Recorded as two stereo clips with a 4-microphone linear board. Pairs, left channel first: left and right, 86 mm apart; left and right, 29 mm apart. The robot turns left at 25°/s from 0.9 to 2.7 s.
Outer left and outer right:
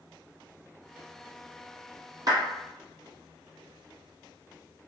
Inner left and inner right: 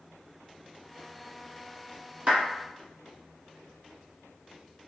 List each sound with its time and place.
2.3 s a clap: 50° right (ahead or behind), 1.8 m